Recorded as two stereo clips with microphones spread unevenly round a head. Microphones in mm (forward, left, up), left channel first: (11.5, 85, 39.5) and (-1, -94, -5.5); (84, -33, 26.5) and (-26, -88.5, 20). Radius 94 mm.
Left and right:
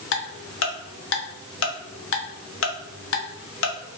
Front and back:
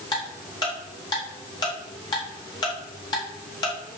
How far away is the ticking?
About 1.0 m.